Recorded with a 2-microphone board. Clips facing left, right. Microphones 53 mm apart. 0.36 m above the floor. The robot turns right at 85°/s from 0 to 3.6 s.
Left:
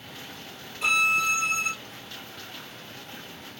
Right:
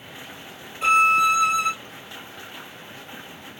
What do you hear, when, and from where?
0.8 s a violin: 150° right, 1.9 m; by 1.7 s 70° right, 1.9 m